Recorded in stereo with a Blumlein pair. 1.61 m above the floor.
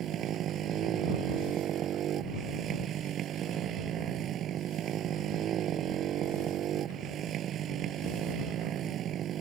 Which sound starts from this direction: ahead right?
A motorcycle, at 0.0 s.